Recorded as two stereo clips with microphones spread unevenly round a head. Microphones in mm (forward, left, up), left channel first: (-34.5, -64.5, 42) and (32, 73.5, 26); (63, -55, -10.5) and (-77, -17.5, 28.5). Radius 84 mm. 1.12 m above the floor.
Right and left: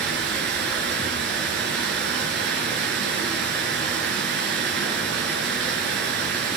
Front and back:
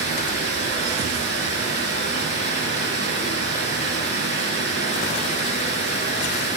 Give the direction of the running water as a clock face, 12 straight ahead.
11 o'clock.